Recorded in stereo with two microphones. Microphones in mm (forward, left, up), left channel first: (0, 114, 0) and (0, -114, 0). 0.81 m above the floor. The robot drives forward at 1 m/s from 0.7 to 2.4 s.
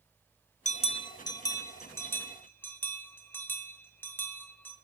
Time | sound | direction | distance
0.7 | a bell | 30° left (ahead or behind) | 0.6 m